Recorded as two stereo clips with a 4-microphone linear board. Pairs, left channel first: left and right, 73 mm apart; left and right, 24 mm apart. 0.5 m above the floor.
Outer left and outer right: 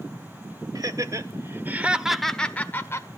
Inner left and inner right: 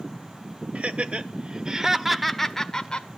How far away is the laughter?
About 2.0 m.